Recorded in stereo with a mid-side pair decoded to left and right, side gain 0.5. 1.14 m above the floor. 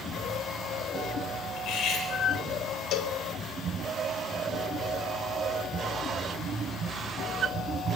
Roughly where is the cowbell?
Left.